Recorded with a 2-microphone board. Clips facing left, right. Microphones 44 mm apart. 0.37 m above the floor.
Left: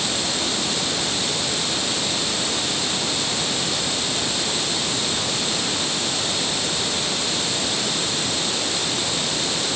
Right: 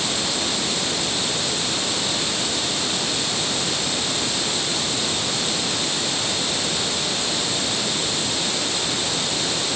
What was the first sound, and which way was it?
Only background noise.